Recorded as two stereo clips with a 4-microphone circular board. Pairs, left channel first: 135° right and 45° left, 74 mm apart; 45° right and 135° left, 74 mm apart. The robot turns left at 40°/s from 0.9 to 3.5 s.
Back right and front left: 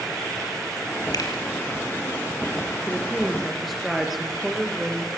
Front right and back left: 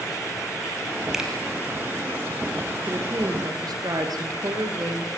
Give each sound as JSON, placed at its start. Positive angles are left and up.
{"t": 1.1, "sound": "a finger snap", "azimuth_deg": -145, "distance_m": 4.0}
{"t": 2.9, "sound": "a woman speaking", "azimuth_deg": 160, "distance_m": 3.5}